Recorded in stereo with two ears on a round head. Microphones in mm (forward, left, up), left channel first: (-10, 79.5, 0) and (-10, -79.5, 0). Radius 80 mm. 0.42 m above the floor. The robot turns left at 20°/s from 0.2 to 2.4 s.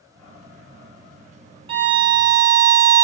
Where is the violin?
30° right (ahead or behind), 0.5 m; by 3.0 s 20° right (ahead or behind), 0.5 m.